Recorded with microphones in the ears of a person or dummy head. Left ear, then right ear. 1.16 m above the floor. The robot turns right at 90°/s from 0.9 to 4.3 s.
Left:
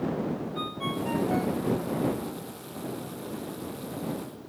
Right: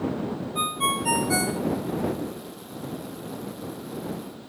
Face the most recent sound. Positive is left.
turn(degrees=165)